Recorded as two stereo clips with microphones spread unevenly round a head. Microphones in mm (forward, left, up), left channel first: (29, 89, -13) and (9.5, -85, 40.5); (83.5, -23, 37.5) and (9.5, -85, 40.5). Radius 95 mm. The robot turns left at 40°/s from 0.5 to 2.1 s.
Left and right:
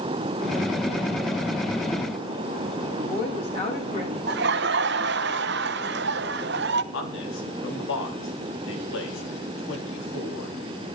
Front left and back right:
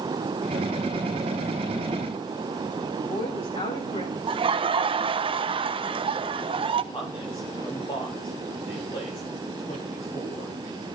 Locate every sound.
3.0 s a woman speaking: 25° left, 7.5 m
4.3 s laughter: 115° right, 1.1 m
6.9 s a man speaking: 95° left, 3.5 m